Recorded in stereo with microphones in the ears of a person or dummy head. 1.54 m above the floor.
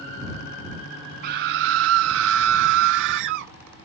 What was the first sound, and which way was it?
A scream, 50° right (ahead or behind).